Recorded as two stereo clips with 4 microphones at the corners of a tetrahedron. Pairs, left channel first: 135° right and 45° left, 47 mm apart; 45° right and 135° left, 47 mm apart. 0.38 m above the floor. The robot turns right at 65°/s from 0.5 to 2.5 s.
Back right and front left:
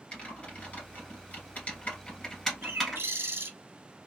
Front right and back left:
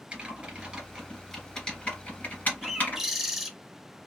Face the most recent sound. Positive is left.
turn(degrees=55)